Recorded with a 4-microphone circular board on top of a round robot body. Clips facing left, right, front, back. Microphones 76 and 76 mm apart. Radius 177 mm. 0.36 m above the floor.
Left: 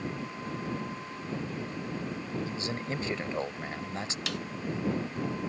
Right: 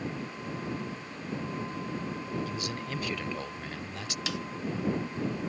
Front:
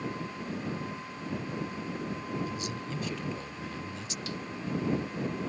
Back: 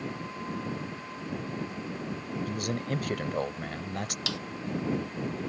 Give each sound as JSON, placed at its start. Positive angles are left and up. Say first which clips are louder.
{"t": 2.5, "sound": "a man speaking", "louder": "left 1 dB, back 4 dB", "azimuth_deg": 150}
{"t": 4.3, "sound": "a snare drum", "louder": "right 3 dB, back 2 dB", "azimuth_deg": 180}